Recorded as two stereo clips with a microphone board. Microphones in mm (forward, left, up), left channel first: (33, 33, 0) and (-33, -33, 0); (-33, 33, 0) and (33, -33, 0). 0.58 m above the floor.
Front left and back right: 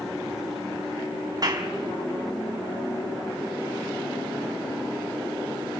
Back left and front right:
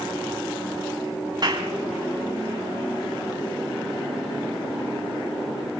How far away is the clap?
About 4 m.